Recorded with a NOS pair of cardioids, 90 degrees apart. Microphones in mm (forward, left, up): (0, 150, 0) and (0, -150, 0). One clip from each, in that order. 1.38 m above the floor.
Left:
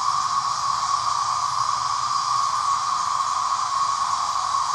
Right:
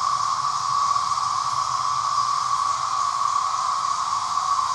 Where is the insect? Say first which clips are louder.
Even; 65° left, 0.8 m.